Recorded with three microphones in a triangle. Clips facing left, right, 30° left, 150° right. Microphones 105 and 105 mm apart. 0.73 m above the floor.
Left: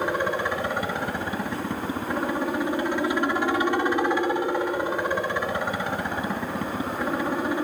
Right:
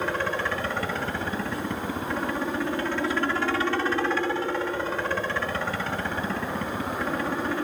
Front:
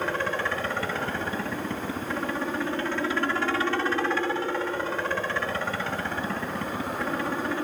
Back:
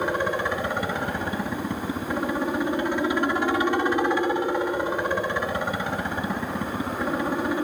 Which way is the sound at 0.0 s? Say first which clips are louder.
Left 2 dB, back 3 dB; 150° left.